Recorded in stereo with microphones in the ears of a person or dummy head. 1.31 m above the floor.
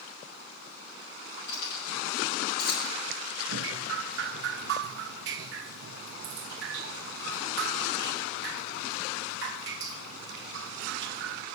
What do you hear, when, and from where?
1.5 s keys jangling: 60° left (ahead or behind), 7 m
3.5 s dripping: 60° right (ahead or behind), 0.6 m